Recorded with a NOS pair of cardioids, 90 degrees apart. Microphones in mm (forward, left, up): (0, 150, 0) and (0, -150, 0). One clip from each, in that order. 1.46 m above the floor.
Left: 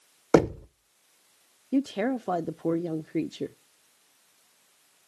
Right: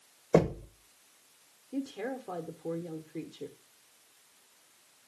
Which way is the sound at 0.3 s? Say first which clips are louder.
Left 5 dB; 65° left.